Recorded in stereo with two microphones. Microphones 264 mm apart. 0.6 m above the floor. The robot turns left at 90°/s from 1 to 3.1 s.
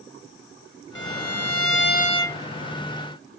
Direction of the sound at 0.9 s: 125° left.